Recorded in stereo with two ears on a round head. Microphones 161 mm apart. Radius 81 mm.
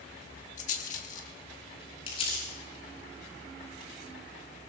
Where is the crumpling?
35° left (ahead or behind), 10 m.